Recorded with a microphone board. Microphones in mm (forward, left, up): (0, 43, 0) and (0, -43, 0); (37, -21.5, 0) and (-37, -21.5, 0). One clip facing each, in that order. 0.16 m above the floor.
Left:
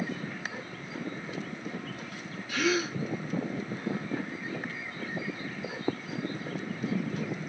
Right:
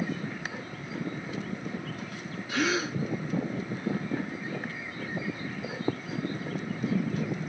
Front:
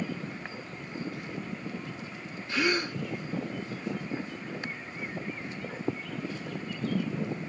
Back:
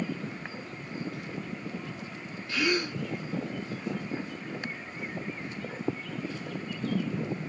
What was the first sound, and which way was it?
A gasp, 50° right.